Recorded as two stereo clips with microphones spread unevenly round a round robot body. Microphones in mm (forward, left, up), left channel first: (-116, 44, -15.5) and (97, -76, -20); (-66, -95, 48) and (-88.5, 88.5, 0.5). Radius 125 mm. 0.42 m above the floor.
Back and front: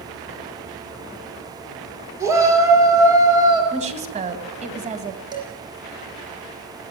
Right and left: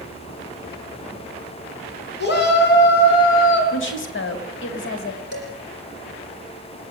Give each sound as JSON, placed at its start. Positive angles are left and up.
{"t": 2.2, "sound": "a shout", "azimuth_deg": -105, "distance_m": 7.0}
{"t": 3.7, "sound": "a woman speaking", "azimuth_deg": -90, "distance_m": 3.0}
{"t": 5.3, "sound": "dishes clattering", "azimuth_deg": -100, "distance_m": 10.0}